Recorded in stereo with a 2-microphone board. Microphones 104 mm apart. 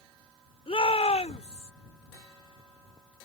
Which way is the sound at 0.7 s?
70° left (ahead or behind).